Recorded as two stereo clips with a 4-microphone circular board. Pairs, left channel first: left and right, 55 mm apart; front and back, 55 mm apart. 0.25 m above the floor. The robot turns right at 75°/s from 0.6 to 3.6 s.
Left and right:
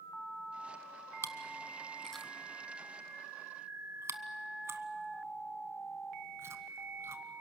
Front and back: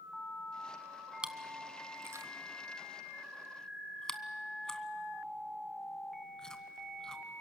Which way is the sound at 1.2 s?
105° left.